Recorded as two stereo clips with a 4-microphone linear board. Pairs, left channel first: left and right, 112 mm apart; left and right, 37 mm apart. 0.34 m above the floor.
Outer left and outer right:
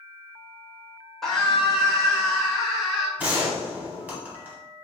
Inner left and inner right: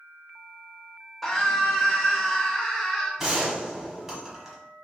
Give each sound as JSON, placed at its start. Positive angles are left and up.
{"t": 1.2, "sound": "a scream", "side_deg": 5, "distance_m": 0.8}
{"t": 3.2, "sound": "a gunshot", "side_deg": -15, "distance_m": 1.0}